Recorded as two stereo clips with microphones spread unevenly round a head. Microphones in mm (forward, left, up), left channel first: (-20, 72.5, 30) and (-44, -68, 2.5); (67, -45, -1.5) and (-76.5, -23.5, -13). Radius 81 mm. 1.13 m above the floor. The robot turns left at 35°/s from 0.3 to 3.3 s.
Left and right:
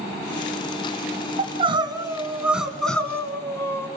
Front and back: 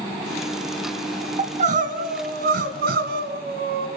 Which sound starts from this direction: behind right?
Crying, at 1.4 s.